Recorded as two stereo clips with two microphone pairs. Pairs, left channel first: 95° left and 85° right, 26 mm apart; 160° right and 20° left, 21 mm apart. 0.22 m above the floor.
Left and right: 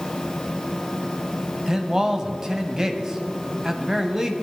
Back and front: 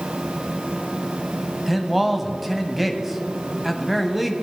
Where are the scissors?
I don't hear scissors.